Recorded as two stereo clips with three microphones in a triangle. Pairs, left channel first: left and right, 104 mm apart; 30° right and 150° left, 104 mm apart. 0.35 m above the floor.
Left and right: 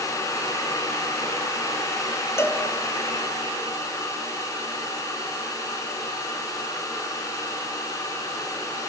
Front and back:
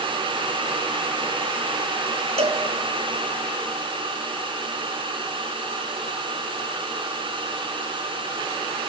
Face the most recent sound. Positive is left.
turn(degrees=155)